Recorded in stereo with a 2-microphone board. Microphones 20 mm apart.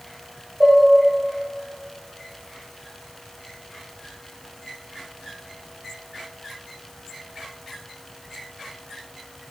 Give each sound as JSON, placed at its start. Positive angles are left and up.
{"t": 0.6, "sound": "dishes clattering", "side_deg": -45, "distance_m": 3.0}